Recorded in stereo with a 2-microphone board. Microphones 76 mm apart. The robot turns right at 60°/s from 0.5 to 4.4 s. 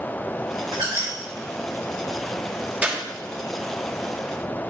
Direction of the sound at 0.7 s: 70° right (ahead or behind).